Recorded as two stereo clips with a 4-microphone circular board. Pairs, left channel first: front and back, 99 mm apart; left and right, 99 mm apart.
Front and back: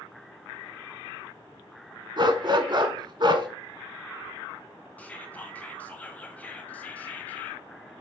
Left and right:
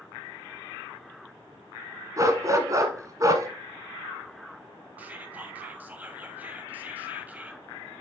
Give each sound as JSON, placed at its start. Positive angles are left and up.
{"t": 2.2, "sound": "a dog barking", "azimuth_deg": -145, "distance_m": 0.9}
{"t": 5.0, "sound": "whispering", "azimuth_deg": -45, "distance_m": 1.2}